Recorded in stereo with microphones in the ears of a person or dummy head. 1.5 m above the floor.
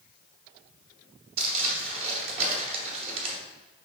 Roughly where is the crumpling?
Right.